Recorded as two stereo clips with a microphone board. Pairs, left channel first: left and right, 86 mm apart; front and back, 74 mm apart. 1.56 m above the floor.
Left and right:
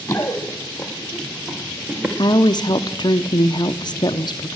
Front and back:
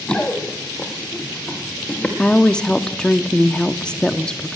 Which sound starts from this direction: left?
A woman speaking, at 2.2 s.